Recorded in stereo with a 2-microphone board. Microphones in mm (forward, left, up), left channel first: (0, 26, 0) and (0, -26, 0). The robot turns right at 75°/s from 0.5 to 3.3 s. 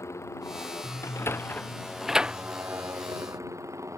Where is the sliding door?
70° left (ahead or behind); by 2.4 s 25° right (ahead or behind).